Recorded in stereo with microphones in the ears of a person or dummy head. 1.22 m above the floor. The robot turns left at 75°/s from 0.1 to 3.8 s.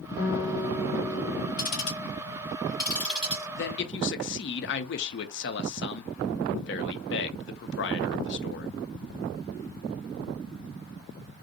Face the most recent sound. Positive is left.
turn(degrees=50)  # may be behind; listen again after turning